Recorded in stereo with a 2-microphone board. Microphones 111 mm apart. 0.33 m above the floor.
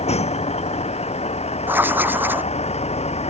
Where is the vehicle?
80° left.